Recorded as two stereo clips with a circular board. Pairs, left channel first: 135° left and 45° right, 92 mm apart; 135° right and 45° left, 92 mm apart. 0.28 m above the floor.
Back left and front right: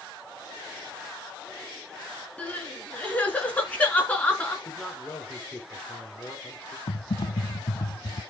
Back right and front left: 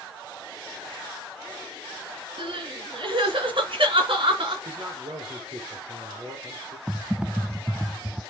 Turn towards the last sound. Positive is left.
turn(degrees=125)